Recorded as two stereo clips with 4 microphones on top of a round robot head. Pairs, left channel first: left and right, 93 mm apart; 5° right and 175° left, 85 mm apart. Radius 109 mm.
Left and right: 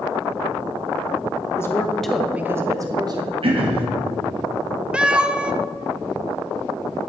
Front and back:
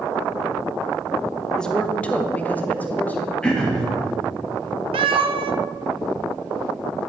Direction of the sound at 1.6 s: 70° left.